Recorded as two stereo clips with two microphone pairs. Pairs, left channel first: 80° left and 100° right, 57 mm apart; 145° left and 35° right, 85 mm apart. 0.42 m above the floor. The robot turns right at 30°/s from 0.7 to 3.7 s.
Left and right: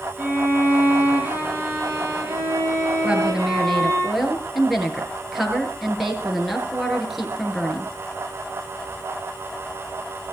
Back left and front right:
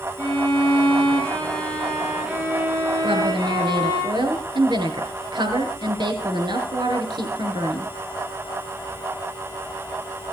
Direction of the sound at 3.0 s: 30° right.